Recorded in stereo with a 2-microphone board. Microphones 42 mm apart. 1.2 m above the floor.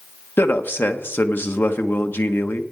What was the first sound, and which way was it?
A man speaking, 60° left (ahead or behind).